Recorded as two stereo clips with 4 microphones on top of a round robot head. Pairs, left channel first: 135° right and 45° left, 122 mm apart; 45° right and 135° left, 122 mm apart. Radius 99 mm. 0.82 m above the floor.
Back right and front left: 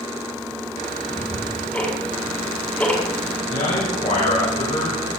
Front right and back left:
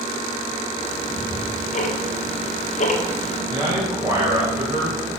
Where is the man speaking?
165° right, 4 m.